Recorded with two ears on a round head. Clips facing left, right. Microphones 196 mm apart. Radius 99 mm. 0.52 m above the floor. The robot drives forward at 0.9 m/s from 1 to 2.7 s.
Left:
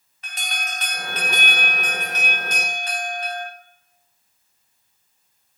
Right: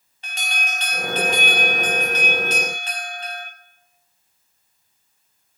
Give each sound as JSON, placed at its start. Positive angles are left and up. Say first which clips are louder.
{"t": 0.2, "sound": "an alarm", "louder": "right 2 dB", "side_deg": -25, "distance_m": 1.5}